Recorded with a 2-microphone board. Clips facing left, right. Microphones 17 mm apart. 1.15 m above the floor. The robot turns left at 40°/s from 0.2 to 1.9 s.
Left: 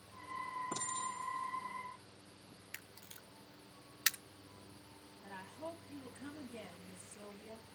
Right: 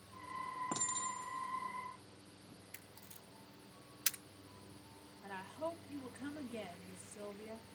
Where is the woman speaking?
40° right (ahead or behind), 2.5 m.